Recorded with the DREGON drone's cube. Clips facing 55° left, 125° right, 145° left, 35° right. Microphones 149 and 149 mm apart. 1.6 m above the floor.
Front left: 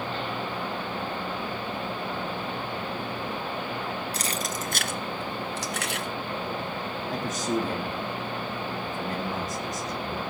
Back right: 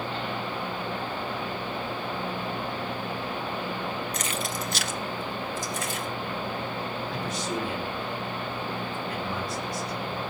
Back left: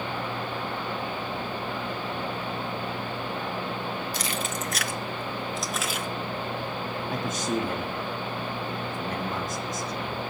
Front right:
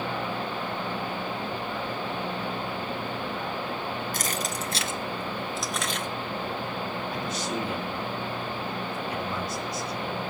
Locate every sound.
4.1 s keys jangling: straight ahead, 1.2 m; by 6.1 s 65° left, 1.5 m
7.1 s a man speaking: 105° left, 3.5 m